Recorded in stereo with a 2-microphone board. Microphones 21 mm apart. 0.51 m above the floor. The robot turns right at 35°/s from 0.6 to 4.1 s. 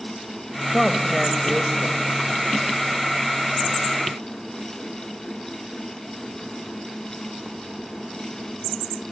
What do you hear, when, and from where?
0.7 s a man speaking: 165° left, 1.9 m; by 2.0 s 150° right, 1.9 m